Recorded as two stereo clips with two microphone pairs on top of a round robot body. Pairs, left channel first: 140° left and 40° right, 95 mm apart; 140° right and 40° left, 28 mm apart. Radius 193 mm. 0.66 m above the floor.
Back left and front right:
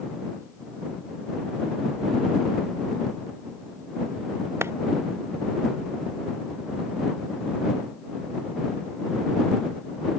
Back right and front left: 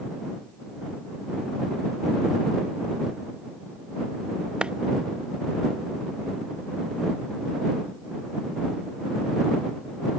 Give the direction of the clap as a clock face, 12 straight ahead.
12 o'clock.